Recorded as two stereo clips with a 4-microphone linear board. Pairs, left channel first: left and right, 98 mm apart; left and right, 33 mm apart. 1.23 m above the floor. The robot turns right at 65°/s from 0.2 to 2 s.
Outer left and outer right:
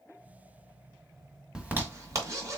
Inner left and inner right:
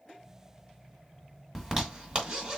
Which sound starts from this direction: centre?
A zipper, at 1.6 s.